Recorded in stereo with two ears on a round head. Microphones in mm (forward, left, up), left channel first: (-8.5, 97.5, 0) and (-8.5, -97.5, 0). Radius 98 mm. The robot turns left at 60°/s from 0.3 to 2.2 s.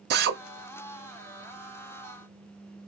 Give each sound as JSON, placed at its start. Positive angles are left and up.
{"t": 0.1, "sound": "a drill", "side_deg": -45, "distance_m": 0.8}